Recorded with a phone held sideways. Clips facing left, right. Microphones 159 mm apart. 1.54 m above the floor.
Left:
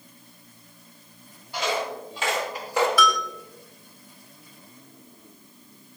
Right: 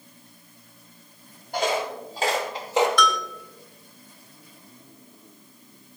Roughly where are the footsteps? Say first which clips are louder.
Right 2 dB; right.